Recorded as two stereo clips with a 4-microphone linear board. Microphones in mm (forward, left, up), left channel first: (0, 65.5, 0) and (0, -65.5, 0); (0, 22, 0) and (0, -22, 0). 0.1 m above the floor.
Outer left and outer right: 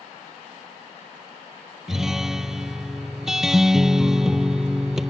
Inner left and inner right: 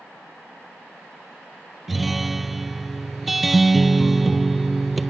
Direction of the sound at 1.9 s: 5° right (ahead or behind).